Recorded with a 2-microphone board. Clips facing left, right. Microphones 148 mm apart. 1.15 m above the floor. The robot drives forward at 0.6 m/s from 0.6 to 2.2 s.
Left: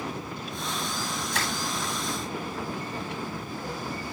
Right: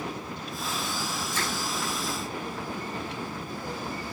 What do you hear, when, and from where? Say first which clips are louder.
1.3 s crushing: left 2 dB; 80° left, 7.5 m